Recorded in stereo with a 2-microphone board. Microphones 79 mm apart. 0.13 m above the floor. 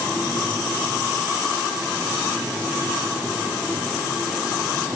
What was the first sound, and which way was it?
Only background noise.